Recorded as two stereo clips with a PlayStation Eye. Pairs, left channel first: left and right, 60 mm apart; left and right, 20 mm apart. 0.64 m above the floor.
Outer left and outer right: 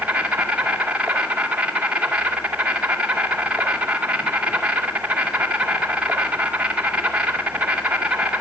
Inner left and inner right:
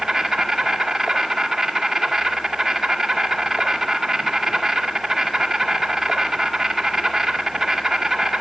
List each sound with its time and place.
0.0 s an insect: 20° right (ahead or behind), 2.0 m